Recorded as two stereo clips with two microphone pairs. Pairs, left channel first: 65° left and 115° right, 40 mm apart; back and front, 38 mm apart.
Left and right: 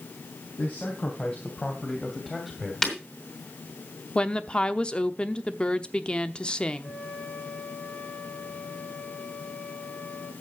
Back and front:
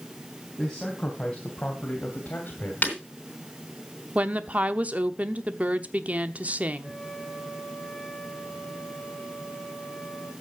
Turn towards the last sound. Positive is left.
turn(degrees=105)